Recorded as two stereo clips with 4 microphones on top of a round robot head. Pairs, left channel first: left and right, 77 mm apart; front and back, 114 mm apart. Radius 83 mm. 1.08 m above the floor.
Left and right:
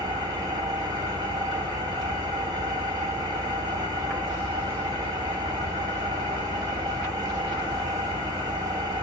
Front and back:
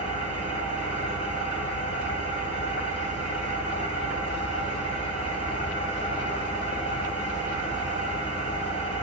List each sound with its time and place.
0.0 s an engine running: 50° right, 2.0 m